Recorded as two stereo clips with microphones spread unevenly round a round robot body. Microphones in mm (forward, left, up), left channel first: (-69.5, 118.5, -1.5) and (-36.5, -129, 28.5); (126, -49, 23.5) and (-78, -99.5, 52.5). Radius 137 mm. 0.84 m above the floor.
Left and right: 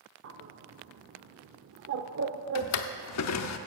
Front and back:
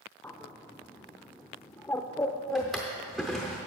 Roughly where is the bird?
Right.